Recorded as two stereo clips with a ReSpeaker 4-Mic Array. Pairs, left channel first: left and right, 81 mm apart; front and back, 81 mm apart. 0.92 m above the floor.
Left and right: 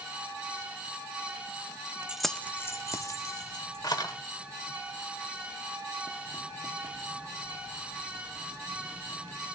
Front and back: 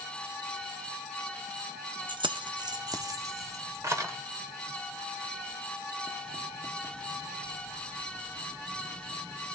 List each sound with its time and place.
2.1 s keys jangling: 170° right, 0.7 m; by 4.1 s 125° left, 2.5 m